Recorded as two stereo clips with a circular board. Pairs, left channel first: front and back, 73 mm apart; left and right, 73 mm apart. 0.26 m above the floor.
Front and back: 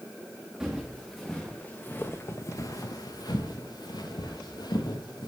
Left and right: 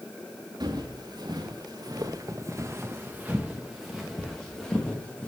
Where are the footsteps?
100° right, 1.4 m; by 5.3 s 15° left, 2.0 m.